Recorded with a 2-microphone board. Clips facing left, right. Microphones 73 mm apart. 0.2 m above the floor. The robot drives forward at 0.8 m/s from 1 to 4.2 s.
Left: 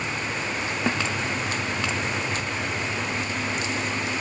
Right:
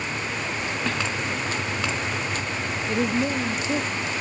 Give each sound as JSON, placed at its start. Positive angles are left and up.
{"t": 0.9, "sound": "a snare drum", "side_deg": 20}
{"t": 2.9, "sound": "a woman speaking", "side_deg": -65}